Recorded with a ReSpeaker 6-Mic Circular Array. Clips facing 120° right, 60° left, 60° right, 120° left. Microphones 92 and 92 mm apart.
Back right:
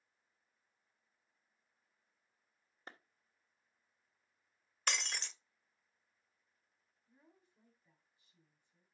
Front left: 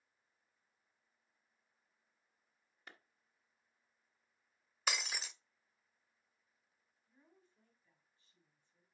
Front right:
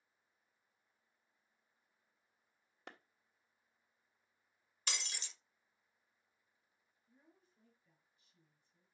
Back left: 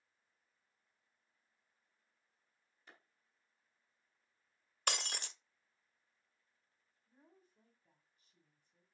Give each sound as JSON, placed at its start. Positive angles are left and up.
{"t": 2.9, "sound": "a clap", "azimuth_deg": -65, "distance_m": 1.2}
{"t": 4.9, "sound": "breaking glass", "azimuth_deg": 145, "distance_m": 0.8}
{"t": 7.1, "sound": "a woman speaking", "azimuth_deg": 165, "distance_m": 3.0}